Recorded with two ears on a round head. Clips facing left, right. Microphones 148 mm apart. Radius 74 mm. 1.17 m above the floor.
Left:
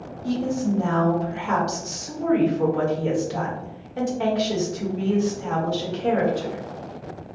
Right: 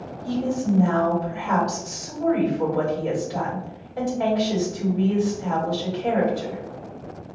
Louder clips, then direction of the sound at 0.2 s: Even; 30° left (ahead or behind).